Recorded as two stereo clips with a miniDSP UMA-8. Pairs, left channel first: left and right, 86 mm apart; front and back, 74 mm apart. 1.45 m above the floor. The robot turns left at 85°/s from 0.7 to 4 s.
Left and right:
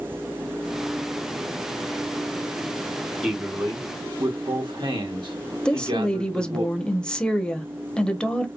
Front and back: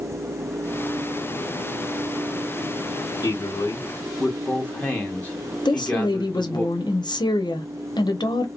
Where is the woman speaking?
10° left, 0.9 m.